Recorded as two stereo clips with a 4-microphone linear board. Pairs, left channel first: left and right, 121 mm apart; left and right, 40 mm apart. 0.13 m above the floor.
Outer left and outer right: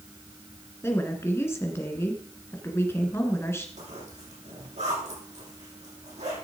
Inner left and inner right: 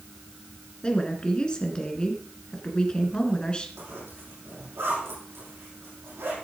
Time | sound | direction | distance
0.8 | a woman speaking | 20° left (ahead or behind) | 1.8 m
3.8 | a zipper | 75° right (ahead or behind) | 7 m